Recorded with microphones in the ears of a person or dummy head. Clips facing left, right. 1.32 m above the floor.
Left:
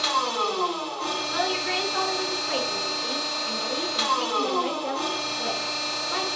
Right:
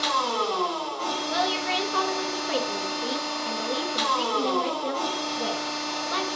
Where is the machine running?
75° right (ahead or behind), 1.1 m.